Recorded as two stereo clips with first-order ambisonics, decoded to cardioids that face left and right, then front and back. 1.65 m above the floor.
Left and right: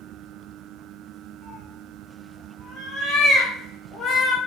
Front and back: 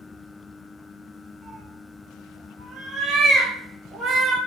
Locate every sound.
1.4 s a cat meowing: 125° left, 1.3 m